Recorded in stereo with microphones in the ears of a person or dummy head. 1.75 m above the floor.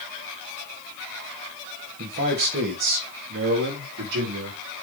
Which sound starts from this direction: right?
A man speaking, at 2.0 s.